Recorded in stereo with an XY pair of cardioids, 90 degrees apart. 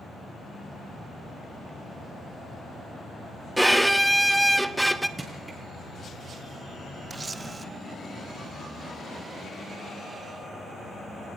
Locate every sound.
3.6 s a violin: 10° right, 1.3 m
5.2 s crushing: 25° right, 8.5 m
7.1 s a camera shutter: 30° right, 1.1 m